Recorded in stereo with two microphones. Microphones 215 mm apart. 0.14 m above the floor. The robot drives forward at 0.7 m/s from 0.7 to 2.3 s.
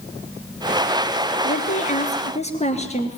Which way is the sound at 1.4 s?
35° left (ahead or behind).